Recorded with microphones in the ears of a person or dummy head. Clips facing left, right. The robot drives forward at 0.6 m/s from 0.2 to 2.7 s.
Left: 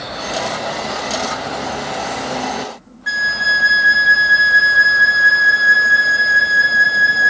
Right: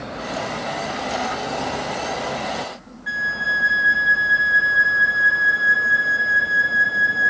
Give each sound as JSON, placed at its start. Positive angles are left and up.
{"t": 3.1, "sound": "a flute", "side_deg": 55}